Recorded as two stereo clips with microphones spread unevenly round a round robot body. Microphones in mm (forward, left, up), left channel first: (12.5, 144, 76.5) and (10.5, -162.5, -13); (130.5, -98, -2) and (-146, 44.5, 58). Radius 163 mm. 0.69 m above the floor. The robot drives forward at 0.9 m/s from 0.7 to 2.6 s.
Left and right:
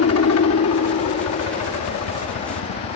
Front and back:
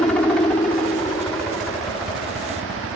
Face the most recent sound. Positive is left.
turn(degrees=55)